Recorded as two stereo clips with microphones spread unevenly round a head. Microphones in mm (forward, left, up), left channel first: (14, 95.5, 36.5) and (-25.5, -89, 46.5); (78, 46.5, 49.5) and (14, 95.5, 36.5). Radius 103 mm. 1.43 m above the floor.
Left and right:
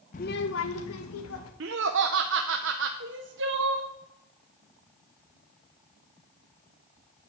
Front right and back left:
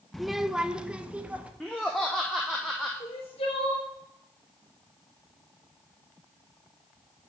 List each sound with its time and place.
0.1 s a child speaking: 40° left, 0.6 m; by 1.5 s 65° left, 1.7 m
1.6 s laughter: 120° right, 0.7 m
3.0 s crying: 70° right, 1.3 m